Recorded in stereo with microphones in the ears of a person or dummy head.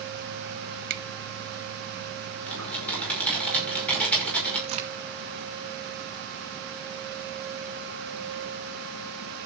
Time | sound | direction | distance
0.9 | a finger snap | 55° right (ahead or behind) | 1.1 m
2.5 | typing on a keyboard | 5° left (ahead or behind) | 5.5 m
4.7 | a crack | 35° right (ahead or behind) | 1.9 m